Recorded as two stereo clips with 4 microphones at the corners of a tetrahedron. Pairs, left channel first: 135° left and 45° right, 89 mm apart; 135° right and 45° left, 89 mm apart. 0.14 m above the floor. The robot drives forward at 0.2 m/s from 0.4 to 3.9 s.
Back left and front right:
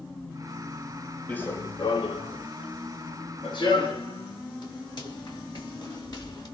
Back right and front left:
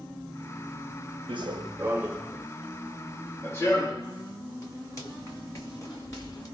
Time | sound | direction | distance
1.3 | running footsteps | 60° left | 0.7 m